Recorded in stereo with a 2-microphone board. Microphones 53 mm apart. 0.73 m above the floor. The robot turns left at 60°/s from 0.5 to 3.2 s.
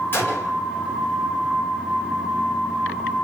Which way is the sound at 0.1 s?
40° left (ahead or behind).